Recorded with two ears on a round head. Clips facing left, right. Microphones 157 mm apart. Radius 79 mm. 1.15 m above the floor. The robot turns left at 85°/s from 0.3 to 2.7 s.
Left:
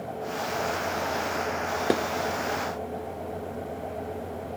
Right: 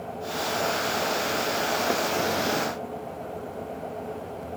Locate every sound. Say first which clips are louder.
1.9 s dishes clattering: left 5 dB; 30° left (ahead or behind), 0.7 m; by 2.0 s 25° left (ahead or behind), 0.7 m